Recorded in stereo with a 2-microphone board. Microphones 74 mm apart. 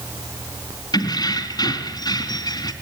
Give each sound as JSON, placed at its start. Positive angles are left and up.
{"t": 0.9, "sound": "keys jangling", "side_deg": 75, "distance_m": 2.5}